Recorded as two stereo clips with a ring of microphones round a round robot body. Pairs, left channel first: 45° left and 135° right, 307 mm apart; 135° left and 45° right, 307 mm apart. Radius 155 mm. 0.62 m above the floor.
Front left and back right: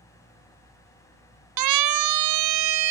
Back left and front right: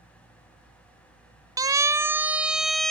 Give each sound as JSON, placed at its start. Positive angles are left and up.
{"t": 1.6, "sound": "a siren", "azimuth_deg": -125}